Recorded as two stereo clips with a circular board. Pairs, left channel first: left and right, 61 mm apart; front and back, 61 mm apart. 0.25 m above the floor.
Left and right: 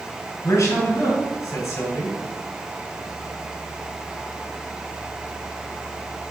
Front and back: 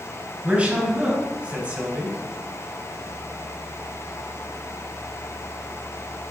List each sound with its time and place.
0.4 s a man speaking: 115° left, 3 m